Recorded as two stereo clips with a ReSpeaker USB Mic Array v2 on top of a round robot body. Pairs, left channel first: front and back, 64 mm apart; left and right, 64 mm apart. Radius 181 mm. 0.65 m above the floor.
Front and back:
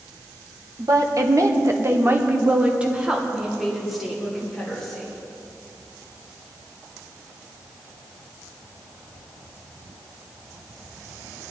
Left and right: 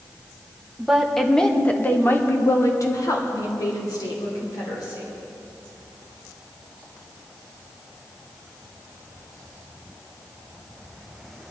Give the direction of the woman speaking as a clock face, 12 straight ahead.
6 o'clock.